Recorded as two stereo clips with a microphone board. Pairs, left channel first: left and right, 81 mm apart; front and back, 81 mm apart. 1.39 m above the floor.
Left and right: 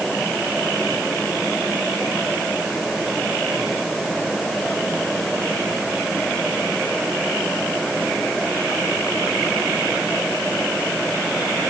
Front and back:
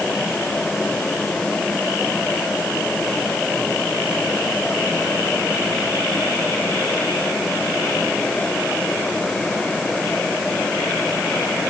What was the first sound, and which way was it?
Only background noise.